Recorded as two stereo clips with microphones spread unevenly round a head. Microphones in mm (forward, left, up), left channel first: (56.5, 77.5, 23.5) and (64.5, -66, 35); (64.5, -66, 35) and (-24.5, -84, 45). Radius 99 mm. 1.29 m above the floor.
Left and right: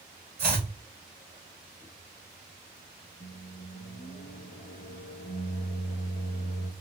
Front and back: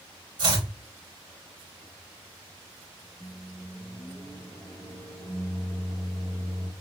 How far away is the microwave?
About 1.5 m.